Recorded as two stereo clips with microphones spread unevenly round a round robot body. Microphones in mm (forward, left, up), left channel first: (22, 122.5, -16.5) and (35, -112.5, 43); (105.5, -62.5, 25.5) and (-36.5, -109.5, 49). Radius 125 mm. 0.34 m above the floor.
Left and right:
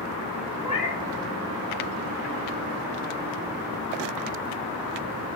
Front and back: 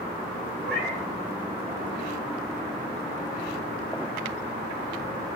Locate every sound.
0.6 s a cat meowing: 165° right, 2.5 m